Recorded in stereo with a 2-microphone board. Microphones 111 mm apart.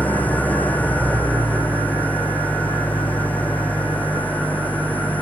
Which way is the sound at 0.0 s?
15° left (ahead or behind).